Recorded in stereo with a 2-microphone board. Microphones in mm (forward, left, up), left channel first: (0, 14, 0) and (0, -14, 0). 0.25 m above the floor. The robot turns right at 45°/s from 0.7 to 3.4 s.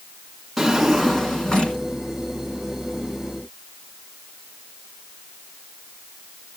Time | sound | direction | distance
0.6 | a drawer | 5° right | 1.8 m